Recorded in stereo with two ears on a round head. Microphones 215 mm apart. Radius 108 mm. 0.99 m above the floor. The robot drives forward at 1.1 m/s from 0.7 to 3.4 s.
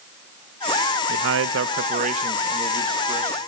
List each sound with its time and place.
1.1 s a man speaking: 45° right (ahead or behind), 0.7 m; by 3.4 s 15° right (ahead or behind), 2 m